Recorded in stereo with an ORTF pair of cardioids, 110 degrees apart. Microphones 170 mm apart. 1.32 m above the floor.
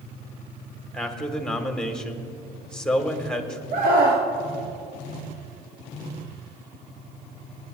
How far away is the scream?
About 1.4 m.